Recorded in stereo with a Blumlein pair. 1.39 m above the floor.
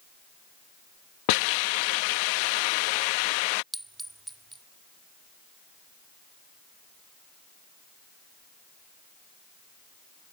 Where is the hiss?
45° left.